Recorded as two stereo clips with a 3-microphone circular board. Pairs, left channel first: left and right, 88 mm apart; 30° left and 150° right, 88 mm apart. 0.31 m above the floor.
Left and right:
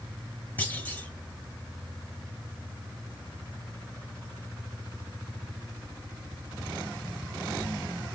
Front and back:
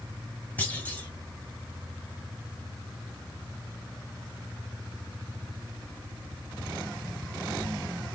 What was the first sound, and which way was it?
A clunk, 65° left.